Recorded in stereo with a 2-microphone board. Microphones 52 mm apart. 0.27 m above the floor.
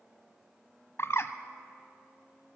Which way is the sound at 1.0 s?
55° left (ahead or behind).